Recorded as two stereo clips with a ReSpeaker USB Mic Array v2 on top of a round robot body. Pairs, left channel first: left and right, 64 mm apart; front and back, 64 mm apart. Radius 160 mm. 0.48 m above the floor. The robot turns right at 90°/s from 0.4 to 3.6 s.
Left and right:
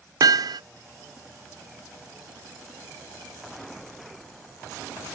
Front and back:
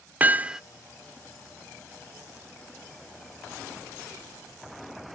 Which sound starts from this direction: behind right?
Hammering, at 0.2 s.